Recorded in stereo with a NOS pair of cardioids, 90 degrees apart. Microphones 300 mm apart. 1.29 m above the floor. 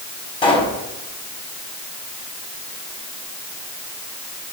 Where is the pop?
15° left, 5.5 m.